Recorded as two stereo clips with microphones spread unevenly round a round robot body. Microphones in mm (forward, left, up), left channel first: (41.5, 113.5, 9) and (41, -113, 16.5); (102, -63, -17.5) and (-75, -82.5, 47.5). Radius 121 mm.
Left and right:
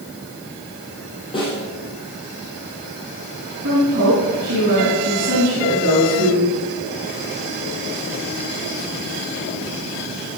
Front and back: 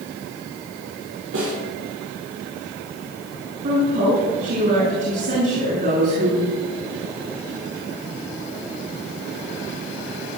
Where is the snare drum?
160° left, 7 m.